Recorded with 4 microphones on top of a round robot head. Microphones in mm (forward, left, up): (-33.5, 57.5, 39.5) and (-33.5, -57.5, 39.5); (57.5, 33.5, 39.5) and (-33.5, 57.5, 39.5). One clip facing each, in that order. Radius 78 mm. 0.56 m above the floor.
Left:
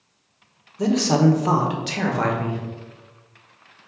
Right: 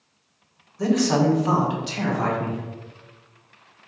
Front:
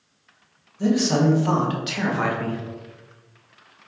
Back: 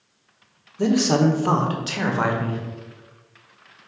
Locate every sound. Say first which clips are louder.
0.8 s a man speaking: left 1 dB, back 1 dB; 160° left, 1.5 m; by 2.6 s 95° left, 2.5 m